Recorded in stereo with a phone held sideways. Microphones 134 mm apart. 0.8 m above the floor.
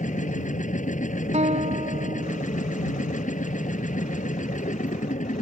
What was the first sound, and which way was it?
A machine running, 70° left (ahead or behind).